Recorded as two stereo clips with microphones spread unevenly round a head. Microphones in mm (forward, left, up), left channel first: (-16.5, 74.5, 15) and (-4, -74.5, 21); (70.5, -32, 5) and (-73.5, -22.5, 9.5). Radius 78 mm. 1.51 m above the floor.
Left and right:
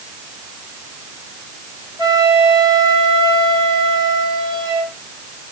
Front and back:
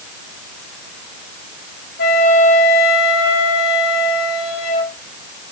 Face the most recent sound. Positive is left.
turn(degrees=-15)